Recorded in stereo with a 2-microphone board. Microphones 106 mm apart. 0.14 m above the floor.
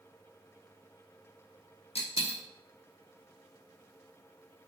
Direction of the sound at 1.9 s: 90° left.